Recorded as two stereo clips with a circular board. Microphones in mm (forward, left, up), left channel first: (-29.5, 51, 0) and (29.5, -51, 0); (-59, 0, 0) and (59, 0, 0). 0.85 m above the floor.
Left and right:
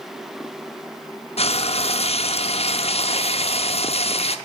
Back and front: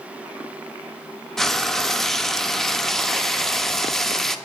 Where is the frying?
95° left, 0.6 m.